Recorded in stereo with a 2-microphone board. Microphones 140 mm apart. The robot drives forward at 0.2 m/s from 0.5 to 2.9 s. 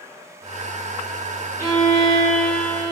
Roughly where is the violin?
Left.